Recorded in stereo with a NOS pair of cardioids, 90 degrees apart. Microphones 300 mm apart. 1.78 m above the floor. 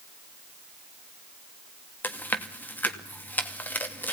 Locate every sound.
2.0 s chewing: 5° left, 2.5 m